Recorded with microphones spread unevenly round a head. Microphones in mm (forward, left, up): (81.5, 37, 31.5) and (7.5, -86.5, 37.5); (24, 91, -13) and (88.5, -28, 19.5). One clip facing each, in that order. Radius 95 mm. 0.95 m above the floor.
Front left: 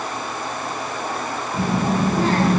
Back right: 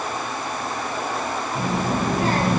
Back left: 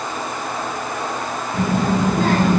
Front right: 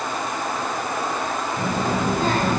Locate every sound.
1.5 s a child speaking: 95° left, 8.5 m